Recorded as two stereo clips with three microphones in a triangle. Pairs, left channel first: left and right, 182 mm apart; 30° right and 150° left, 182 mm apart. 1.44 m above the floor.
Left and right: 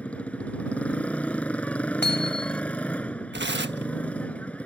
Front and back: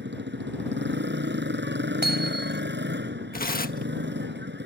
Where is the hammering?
120° left.